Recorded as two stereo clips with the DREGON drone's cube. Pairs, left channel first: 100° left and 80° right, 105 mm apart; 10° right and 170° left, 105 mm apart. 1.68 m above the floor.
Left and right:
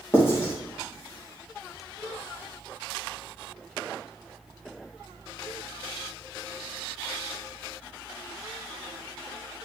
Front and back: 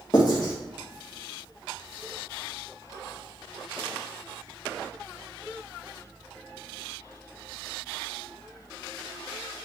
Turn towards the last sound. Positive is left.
turn(degrees=35)